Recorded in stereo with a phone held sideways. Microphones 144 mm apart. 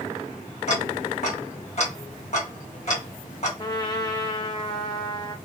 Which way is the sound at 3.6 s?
30° left (ahead or behind).